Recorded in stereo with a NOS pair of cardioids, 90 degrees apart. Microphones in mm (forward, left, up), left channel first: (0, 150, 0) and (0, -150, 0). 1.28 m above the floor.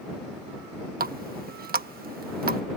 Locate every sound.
1.0 s a running tap: 30° right